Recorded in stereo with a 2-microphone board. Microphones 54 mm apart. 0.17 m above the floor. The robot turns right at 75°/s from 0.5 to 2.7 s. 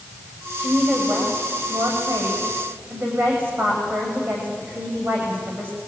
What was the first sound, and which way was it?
A woman speaking, 160° left.